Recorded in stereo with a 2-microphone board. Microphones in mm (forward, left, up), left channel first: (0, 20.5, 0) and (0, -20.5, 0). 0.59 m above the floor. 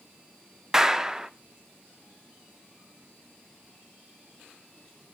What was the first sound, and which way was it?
A clap, 15° right (ahead or behind).